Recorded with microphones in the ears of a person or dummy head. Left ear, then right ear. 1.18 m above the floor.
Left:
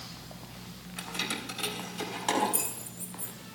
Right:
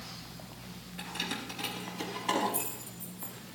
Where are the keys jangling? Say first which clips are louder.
Left 2 dB; 85° left, 3.5 m.